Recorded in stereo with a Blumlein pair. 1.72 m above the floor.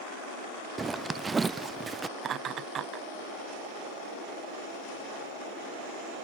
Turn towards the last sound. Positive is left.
turn(degrees=-30)